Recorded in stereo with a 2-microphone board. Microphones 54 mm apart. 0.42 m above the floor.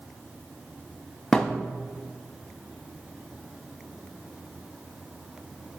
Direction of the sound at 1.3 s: 10° left (ahead or behind).